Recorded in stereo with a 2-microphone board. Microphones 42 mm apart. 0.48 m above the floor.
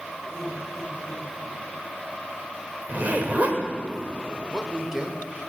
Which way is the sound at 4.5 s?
15° right (ahead or behind).